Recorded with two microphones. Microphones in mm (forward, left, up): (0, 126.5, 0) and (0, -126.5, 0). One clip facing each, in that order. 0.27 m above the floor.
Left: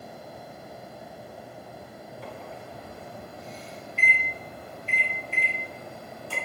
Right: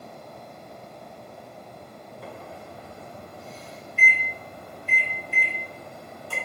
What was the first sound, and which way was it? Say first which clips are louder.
A microwave: right 1 dB; 50° right (ahead or behind).